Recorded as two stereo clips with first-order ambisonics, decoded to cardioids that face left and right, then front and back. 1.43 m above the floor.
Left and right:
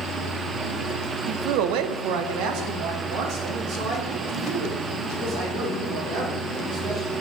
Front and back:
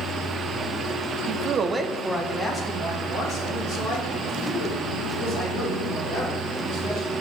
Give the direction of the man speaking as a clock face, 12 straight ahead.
5 o'clock.